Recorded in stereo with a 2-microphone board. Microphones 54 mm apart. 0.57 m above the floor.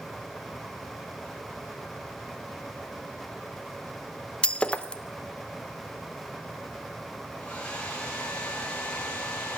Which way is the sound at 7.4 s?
20° left (ahead or behind).